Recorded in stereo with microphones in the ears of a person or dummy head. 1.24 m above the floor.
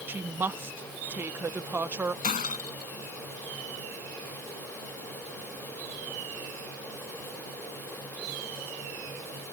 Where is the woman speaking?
15° right (ahead or behind).